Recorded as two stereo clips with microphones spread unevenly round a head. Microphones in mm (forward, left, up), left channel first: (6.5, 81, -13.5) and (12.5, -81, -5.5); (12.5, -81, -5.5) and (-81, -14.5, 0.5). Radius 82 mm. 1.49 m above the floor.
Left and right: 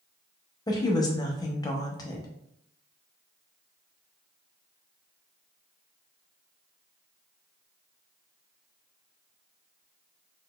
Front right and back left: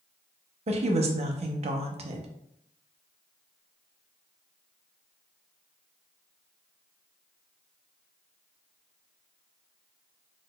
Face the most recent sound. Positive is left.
turn(degrees=160)